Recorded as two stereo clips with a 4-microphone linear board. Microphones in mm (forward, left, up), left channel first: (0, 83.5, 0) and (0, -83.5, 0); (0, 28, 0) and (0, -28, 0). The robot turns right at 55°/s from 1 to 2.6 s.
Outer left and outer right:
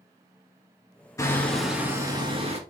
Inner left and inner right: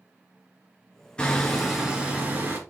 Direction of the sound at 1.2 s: 155° left.